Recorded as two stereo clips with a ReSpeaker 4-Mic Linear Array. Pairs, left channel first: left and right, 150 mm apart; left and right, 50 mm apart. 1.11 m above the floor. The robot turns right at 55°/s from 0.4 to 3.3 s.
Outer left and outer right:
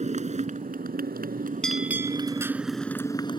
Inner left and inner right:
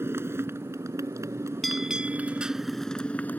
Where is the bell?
175° left; by 2.5 s 140° right.